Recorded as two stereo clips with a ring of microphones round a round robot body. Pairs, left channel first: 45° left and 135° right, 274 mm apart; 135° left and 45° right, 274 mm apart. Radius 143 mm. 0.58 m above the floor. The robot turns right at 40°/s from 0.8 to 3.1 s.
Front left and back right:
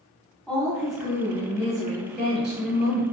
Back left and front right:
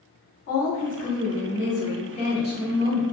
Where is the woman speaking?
130° left, 1.6 m; by 3.0 s 140° right, 1.6 m.